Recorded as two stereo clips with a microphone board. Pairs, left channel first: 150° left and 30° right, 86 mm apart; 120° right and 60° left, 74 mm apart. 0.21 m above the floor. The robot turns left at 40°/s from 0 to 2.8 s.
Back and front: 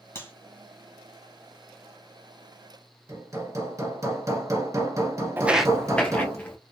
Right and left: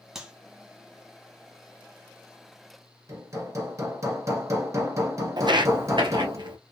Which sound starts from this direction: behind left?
A clap, at 0.1 s.